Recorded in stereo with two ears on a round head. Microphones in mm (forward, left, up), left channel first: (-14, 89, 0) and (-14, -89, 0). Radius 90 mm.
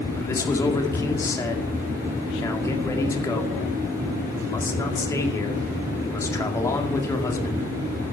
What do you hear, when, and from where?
0.2 s a man speaking: 15° left (ahead or behind), 2 m